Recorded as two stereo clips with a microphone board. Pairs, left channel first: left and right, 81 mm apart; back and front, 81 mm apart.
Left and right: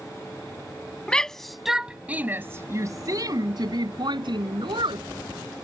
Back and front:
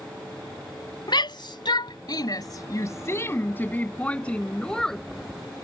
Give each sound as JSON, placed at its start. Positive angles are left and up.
{"t": 1.1, "sound": "a shout", "azimuth_deg": 170}